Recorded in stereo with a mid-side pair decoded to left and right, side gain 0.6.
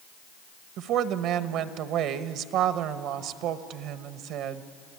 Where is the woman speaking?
65° right, 1.0 m.